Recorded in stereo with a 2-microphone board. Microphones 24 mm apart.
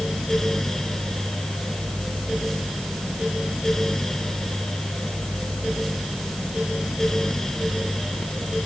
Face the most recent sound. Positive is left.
No sound to turn to.